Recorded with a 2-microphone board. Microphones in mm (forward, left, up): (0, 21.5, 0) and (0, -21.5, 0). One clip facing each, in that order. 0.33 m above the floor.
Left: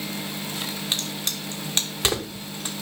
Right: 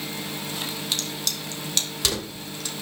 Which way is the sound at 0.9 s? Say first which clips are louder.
Left 1 dB; 25° left (ahead or behind).